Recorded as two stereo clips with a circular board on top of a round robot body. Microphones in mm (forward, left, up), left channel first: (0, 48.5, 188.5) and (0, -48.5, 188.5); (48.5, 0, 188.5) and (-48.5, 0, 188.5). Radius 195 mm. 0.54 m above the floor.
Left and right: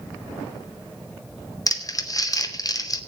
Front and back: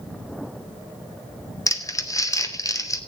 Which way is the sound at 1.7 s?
45° left.